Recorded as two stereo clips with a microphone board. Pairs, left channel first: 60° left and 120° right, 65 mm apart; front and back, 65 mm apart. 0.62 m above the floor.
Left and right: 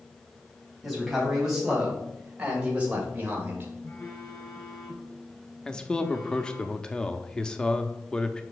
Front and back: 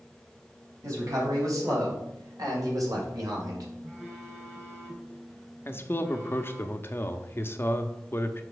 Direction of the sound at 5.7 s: 10° right.